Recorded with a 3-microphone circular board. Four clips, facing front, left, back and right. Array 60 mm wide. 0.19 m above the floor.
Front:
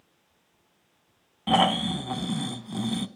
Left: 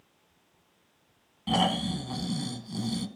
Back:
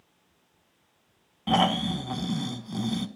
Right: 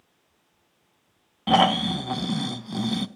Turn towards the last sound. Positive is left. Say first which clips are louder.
# right 7 dB, front 1 dB
turn(degrees=-80)